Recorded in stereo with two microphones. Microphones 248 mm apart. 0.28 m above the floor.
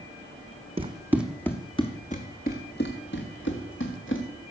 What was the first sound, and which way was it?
Running footsteps, 25° right (ahead or behind).